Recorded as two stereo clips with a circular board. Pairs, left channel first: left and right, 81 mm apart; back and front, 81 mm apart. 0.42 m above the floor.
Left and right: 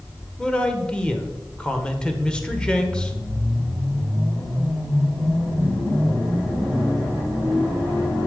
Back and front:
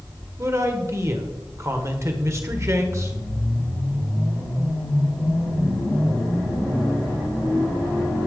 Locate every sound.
0.4 s a man speaking: 20° left, 1.4 m